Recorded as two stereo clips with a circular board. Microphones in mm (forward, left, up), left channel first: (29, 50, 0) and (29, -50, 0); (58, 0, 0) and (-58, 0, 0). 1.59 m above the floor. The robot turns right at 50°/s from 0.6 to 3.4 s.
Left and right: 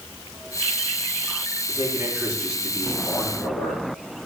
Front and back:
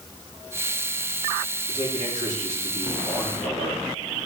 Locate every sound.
1.7 s a man speaking: 45° right, 4 m; by 3.8 s 45° left, 4 m